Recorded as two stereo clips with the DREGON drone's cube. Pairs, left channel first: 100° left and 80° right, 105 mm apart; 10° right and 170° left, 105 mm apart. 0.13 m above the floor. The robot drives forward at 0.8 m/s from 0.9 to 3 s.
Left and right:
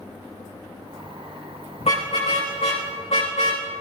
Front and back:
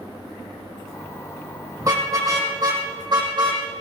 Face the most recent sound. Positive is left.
turn(degrees=125)